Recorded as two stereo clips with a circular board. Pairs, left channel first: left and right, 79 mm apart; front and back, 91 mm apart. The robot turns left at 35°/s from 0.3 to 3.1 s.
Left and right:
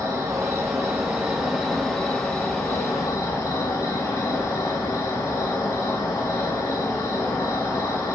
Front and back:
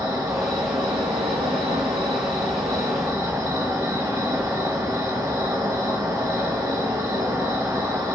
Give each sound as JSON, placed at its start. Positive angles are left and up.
{"t": 0.0, "sound": "an insect", "azimuth_deg": -130, "distance_m": 0.7}